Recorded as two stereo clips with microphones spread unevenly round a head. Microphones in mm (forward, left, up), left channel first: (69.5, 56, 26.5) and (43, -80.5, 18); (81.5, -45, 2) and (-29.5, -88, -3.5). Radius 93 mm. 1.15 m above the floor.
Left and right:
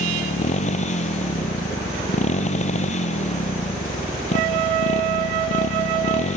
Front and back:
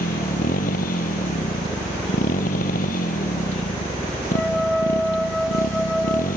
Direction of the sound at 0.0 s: 45° left.